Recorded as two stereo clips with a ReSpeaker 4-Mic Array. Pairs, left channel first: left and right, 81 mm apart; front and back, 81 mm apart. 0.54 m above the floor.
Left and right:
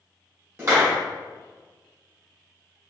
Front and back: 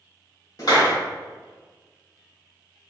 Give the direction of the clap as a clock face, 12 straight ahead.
1 o'clock.